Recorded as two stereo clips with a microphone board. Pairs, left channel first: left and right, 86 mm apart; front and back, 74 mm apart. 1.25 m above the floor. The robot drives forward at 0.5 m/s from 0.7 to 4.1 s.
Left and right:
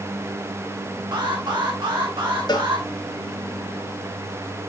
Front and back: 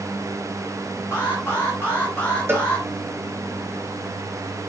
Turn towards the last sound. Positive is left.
turn(degrees=140)